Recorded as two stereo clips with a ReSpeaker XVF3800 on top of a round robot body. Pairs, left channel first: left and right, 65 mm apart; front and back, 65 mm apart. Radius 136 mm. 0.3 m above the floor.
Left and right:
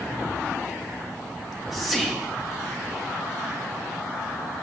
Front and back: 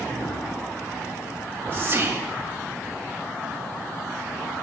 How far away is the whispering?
About 1.5 m.